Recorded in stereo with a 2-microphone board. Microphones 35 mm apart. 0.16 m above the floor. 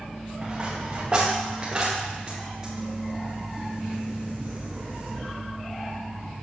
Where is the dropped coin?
25° right (ahead or behind), 3.5 m.